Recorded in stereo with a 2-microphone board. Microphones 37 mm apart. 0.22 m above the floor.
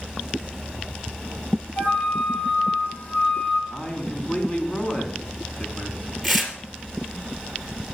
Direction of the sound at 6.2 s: 5° left (ahead or behind).